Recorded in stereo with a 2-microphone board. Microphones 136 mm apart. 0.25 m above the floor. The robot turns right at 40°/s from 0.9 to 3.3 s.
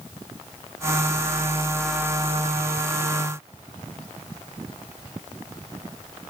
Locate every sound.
Only background noise.